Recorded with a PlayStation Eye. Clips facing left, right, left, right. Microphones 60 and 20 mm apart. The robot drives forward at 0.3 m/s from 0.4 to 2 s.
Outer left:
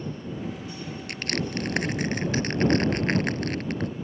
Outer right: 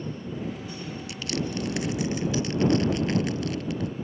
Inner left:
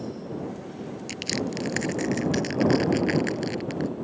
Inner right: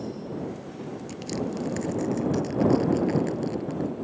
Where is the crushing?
55° left (ahead or behind); by 3.9 s 50° left (ahead or behind).